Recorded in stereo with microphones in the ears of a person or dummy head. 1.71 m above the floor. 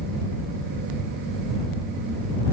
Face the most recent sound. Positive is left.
No sound to turn to.